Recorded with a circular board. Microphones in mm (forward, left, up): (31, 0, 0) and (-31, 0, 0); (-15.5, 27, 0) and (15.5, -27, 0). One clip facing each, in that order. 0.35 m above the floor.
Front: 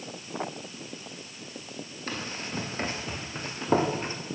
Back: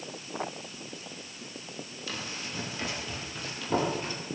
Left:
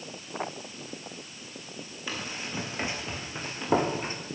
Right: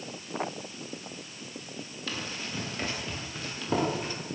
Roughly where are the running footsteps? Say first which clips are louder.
Front 4 dB, left 1 dB; ahead left.